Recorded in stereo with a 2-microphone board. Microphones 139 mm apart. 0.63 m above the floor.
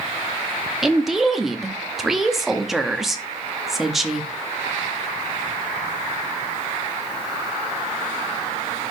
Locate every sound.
0.8 s a woman speaking: centre (ahead or behind), 0.8 m